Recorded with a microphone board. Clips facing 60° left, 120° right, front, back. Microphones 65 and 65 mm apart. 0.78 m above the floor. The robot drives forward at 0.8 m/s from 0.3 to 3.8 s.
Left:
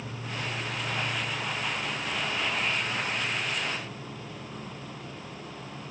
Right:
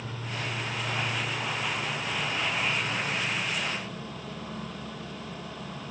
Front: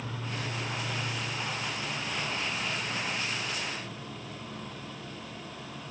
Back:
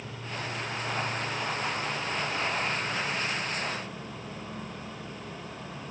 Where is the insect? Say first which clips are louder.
Even, even; 65° right, 2.5 m; by 5.9 s 130° right, 3 m.